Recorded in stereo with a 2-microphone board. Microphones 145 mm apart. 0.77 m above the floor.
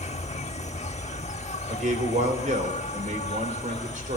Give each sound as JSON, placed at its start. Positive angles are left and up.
{"t": 0.0, "sound": "an insect", "side_deg": 50, "distance_m": 0.7}
{"t": 1.7, "sound": "a man speaking", "side_deg": -60, "distance_m": 3.5}